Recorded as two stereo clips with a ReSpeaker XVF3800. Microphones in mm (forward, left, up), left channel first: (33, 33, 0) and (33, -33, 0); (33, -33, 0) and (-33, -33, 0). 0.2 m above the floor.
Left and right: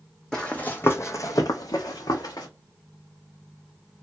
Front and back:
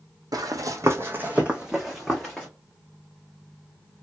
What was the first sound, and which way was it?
Running footsteps, 170° left.